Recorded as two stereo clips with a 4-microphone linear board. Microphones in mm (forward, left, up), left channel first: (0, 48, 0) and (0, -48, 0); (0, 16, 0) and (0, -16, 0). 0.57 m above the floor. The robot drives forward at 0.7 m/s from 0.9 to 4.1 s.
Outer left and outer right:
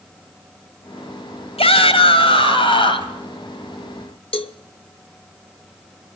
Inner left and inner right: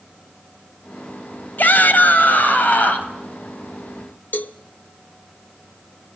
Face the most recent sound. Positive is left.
turn(degrees=60)  # may be behind; listen again after turning